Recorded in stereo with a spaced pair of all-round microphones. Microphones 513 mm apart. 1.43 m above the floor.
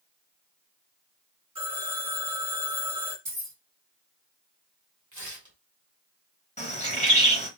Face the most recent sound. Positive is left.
turn(degrees=15)  # may be behind; listen again after turning